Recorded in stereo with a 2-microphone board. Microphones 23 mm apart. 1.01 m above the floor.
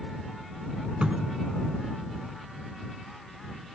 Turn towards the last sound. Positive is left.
turn(degrees=-45)  # may be behind; listen again after turning